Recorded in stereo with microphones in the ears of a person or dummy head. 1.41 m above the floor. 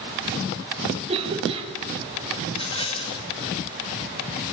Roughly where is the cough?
Right.